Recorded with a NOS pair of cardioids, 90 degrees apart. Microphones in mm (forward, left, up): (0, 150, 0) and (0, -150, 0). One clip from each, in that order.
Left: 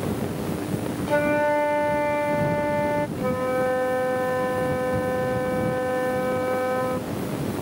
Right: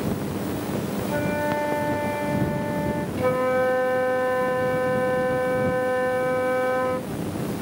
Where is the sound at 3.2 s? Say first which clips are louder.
Right 3 dB; 25° right.